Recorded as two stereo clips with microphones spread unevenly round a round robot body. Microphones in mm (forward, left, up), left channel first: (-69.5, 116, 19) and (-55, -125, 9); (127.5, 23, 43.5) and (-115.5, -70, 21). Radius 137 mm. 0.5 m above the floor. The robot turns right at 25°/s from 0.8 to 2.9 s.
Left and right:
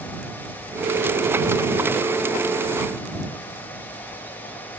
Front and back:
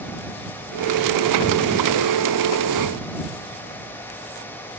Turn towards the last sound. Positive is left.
No sound to turn to.